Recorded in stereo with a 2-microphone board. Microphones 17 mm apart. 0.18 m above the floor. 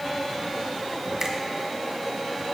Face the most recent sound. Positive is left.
turn(degrees=-15)  # may be behind; listen again after turning